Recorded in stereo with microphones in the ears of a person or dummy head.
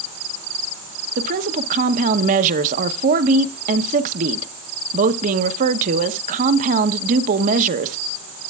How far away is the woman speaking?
About 0.8 m.